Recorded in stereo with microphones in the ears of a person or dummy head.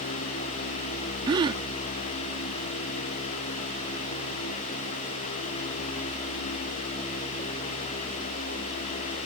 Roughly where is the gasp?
Right.